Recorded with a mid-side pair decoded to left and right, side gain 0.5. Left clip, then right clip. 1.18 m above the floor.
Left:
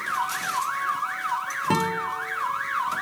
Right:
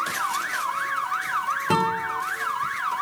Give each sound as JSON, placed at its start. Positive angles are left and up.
{"t": 1.7, "sound": "a guitar", "azimuth_deg": 0, "distance_m": 2.5}